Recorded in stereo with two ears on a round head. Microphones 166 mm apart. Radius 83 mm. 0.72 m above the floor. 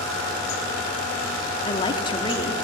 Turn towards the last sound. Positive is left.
turn(degrees=25)  # may be behind; listen again after turning